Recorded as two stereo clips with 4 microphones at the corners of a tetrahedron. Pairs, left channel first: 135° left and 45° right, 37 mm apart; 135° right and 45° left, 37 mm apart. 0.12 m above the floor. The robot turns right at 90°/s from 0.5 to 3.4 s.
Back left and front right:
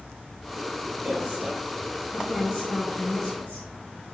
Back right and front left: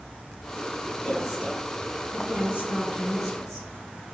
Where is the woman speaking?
75° right, 1.4 m; by 3.7 s 140° left, 1.4 m.